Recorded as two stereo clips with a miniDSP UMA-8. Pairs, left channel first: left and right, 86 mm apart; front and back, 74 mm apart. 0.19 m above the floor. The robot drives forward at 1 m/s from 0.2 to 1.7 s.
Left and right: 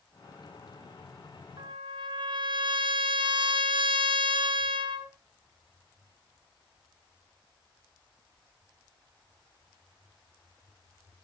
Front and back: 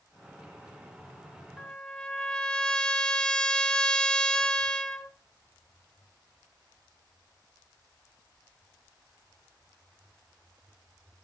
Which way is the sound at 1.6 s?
70° right.